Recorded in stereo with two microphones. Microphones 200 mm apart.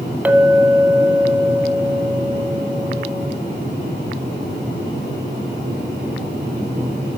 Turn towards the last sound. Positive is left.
turn(degrees=-10)  # may be behind; listen again after turning